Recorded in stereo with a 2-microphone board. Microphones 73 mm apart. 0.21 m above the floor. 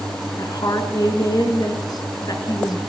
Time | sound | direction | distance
0.4 | a woman speaking | 60° left (ahead or behind) | 3 m